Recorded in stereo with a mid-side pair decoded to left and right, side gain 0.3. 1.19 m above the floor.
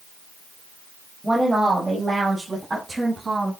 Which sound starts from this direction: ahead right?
A woman speaking, at 1.2 s.